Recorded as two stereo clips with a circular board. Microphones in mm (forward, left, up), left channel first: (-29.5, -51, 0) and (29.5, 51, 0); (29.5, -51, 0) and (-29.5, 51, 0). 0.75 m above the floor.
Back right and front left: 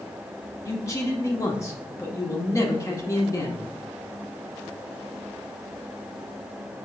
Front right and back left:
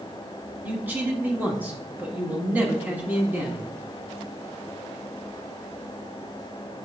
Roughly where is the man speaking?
Behind.